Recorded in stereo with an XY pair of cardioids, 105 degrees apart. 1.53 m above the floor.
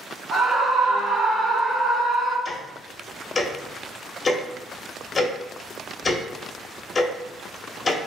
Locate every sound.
0.3 s a scream: 45° right, 1.7 m; by 2.4 s 5° right, 1.6 m
2.5 s ticking: 35° left, 0.8 m